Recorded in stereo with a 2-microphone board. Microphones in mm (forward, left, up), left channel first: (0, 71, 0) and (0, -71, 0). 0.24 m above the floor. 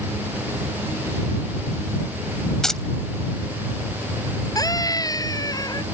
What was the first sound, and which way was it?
Keys jangling, 5° left (ahead or behind).